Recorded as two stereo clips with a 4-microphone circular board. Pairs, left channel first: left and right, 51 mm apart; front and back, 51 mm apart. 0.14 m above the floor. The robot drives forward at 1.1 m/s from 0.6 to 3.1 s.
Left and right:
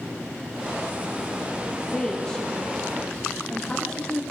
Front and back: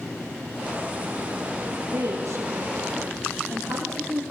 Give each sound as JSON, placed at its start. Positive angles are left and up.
{"t": 1.9, "sound": "a woman speaking", "azimuth_deg": 165, "distance_m": 6.0}